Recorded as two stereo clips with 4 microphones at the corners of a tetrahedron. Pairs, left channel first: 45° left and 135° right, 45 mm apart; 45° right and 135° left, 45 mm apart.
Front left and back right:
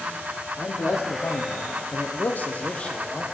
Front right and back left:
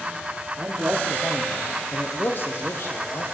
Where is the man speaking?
85° left, 1.1 m; by 3.2 s 30° right, 1.5 m.